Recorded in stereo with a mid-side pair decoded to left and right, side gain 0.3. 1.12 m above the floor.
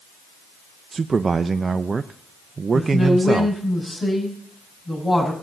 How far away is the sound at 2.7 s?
About 6 m.